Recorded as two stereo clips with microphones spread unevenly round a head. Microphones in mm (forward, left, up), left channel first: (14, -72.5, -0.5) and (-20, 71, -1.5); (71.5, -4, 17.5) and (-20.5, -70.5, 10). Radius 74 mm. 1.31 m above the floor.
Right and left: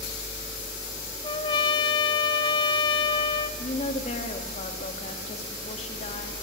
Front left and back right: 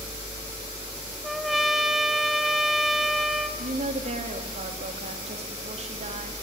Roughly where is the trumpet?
Ahead right.